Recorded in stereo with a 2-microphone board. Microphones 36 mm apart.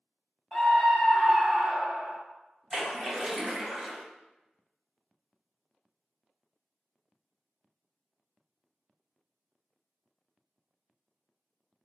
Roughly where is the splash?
Centre.